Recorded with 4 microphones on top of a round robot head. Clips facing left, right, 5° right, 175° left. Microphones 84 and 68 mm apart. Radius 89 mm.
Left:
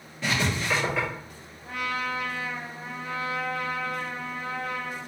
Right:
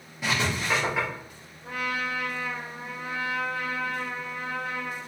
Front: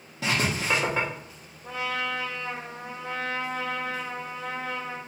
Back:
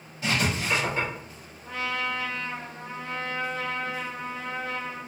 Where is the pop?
I don't hear a pop.